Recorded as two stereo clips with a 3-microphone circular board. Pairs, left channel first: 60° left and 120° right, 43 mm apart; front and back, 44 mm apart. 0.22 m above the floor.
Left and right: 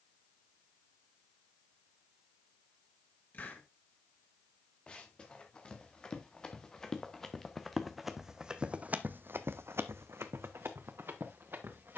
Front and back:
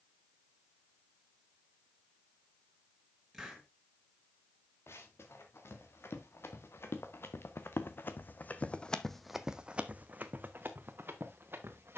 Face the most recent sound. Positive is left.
turn(degrees=-155)